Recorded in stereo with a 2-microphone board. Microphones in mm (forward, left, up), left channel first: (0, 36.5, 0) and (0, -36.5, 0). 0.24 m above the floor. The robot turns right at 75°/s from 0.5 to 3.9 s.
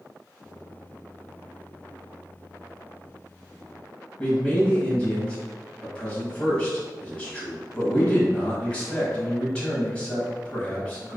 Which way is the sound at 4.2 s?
15° left (ahead or behind).